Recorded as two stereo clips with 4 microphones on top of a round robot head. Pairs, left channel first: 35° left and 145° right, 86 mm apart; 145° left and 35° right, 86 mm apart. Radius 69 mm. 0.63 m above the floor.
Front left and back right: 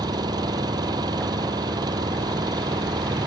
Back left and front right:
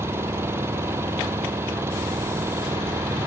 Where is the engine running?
100° right.